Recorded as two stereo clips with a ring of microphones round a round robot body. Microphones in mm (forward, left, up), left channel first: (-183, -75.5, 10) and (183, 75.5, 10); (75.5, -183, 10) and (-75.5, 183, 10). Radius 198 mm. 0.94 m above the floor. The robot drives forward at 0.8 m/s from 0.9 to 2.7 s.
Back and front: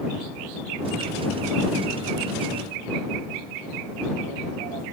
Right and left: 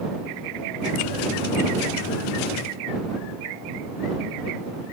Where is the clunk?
I don't hear a clunk.